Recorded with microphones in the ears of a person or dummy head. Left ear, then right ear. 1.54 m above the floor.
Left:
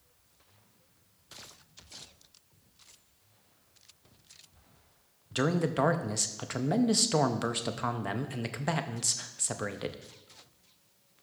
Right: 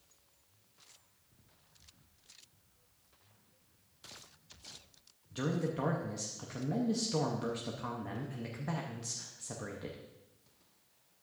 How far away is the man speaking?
About 0.6 m.